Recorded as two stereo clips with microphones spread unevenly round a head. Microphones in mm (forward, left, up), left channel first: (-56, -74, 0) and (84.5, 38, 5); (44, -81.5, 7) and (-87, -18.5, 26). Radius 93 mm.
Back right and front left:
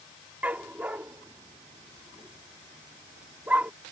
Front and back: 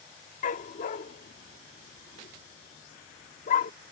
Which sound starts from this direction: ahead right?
A dog barking, at 0.4 s.